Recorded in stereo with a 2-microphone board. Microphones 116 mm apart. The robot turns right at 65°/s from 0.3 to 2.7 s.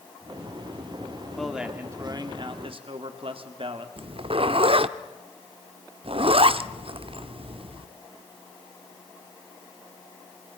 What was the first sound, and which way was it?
A man speaking, 175° left.